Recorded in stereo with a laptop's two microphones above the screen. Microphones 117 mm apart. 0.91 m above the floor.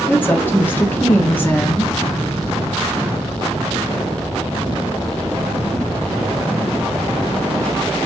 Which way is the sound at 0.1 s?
15° left (ahead or behind).